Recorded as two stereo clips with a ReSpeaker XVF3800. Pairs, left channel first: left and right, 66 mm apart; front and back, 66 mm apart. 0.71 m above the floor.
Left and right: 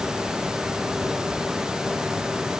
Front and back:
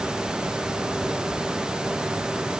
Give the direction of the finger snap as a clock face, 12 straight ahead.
I don't hear a finger snap.